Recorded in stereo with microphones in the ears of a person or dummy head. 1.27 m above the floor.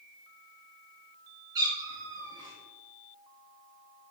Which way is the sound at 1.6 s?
15° right (ahead or behind).